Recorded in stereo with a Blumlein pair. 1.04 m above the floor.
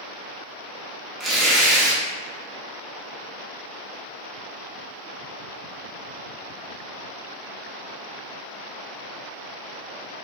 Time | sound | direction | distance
1.2 | tearing paper | 15° right | 0.6 m